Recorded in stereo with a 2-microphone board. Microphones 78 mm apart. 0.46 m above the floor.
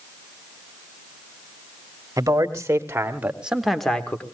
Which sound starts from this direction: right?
A man speaking, at 2.2 s.